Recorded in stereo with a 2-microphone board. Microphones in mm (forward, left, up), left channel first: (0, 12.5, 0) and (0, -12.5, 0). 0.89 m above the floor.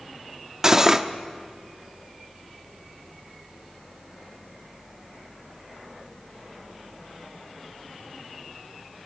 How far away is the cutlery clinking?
About 0.8 m.